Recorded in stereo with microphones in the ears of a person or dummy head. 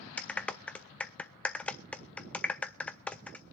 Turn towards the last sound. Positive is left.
turn(degrees=5)  # may be behind; listen again after turning